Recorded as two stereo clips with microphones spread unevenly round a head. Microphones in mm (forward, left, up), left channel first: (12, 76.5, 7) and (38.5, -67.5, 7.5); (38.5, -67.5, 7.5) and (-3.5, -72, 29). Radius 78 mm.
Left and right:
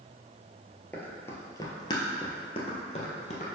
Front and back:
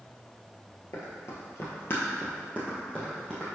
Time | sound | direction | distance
0.9 | running footsteps | 30° left | 1.4 m